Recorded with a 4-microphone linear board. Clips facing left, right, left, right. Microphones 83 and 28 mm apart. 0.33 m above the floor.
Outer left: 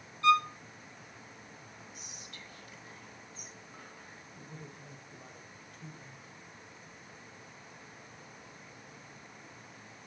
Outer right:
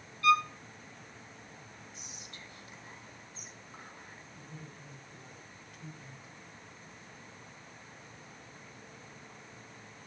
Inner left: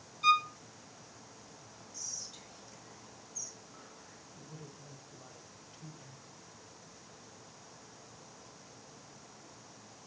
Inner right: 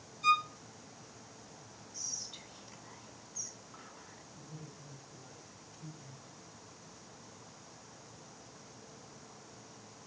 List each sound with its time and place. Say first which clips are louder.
0.2 s a violin: outer left 1 dB, inner left 2 dB; 25° left (ahead or behind), 0.7 m
1.9 s whispering: even, inner right 2 dB; 25° right (ahead or behind), 2.5 m
4.4 s a man speaking: outer left 2 dB, inner left 1 dB; 40° left (ahead or behind), 1.5 m